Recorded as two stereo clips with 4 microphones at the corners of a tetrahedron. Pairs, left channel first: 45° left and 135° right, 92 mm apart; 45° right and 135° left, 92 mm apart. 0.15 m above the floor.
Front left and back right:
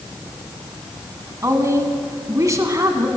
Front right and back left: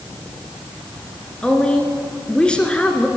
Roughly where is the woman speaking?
Behind right.